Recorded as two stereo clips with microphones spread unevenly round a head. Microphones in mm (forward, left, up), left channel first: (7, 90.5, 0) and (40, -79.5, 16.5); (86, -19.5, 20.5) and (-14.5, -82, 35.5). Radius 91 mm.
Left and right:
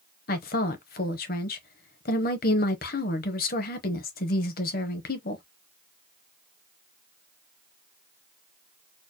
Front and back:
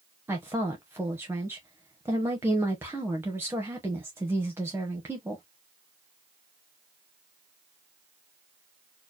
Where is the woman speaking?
140° left, 0.9 m.